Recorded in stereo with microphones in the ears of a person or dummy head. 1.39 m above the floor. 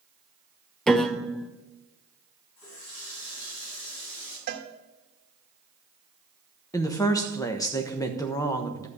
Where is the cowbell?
45° right (ahead or behind), 1.3 m.